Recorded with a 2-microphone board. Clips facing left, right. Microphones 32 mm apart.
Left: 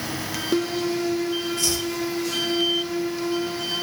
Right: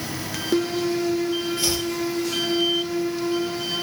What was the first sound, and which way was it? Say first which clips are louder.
Chopping: right 1 dB; 20° right (ahead or behind).